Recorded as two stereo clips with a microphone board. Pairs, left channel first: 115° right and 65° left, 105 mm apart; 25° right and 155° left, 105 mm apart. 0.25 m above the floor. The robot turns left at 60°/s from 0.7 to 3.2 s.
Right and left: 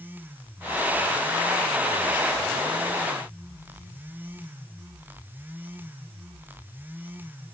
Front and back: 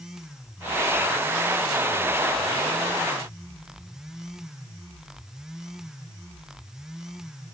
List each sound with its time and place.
Only background noise.